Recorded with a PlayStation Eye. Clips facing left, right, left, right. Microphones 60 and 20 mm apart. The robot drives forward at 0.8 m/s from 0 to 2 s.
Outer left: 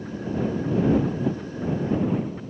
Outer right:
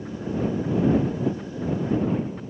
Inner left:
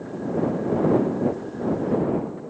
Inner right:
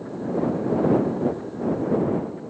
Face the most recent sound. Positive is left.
No sound to turn to.